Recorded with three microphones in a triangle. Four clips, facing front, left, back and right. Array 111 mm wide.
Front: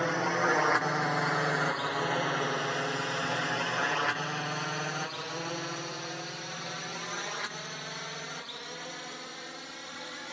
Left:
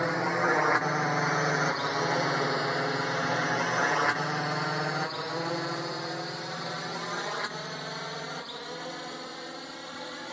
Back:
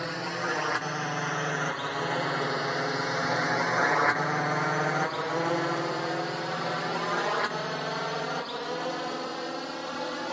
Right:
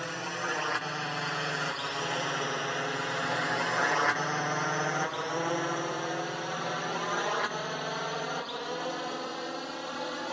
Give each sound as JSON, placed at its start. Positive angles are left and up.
{"t": 0.0, "sound": "a drone", "azimuth_deg": 55}